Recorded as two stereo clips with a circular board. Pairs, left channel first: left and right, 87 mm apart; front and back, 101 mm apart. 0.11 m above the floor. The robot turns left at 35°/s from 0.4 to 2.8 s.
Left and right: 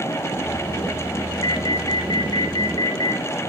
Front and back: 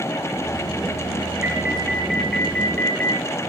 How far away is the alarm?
About 1.9 m.